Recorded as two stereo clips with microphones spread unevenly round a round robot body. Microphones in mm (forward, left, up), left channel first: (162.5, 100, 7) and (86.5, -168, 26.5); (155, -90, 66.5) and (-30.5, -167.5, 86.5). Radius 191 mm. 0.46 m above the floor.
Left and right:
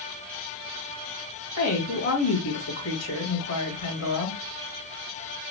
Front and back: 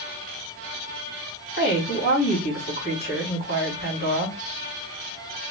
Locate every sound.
1.6 s a woman speaking: 60° left, 2.5 m